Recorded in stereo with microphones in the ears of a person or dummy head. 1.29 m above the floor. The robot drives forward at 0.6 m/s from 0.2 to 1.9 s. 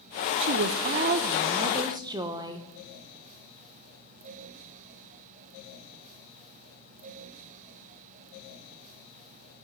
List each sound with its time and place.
0.4 s a woman speaking: 55° right (ahead or behind), 0.5 m; by 2.7 s 25° right (ahead or behind), 1.1 m